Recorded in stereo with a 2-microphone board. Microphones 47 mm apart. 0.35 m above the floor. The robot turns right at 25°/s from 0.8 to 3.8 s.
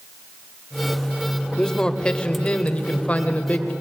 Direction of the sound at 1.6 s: 25° left.